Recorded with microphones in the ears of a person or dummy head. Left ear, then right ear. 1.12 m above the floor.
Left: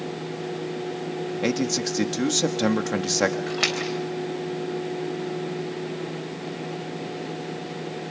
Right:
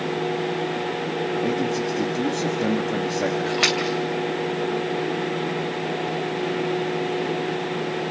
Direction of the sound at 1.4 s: 85° left.